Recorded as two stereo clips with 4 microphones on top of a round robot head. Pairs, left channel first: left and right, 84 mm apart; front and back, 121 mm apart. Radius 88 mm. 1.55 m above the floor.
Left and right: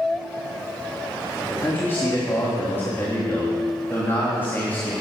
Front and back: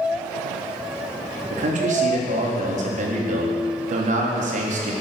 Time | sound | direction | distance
1.5 | a man speaking | 165° left | 3.5 m